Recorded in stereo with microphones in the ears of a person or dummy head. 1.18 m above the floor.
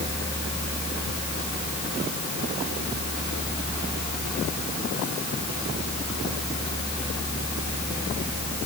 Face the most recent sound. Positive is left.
No sound to turn to.